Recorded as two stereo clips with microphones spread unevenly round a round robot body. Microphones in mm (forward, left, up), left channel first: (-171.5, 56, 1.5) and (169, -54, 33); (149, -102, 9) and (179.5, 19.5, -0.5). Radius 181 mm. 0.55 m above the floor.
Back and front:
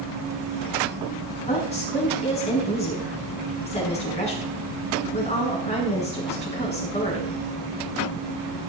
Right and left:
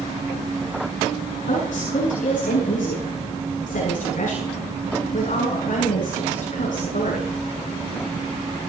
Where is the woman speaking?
125° right, 6.5 m.